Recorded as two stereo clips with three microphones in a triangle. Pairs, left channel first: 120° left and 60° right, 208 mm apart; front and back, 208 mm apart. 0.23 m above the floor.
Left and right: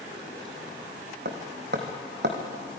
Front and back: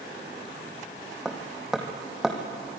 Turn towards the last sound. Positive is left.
turn(degrees=-90)